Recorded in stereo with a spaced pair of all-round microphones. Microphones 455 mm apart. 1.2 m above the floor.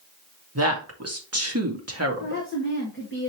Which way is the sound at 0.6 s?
35° right (ahead or behind).